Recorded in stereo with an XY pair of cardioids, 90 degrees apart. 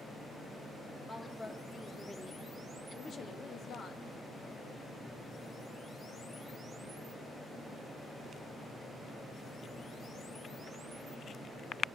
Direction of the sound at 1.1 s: 25° left.